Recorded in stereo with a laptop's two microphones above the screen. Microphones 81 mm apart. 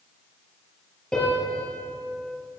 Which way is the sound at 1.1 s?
10° left (ahead or behind).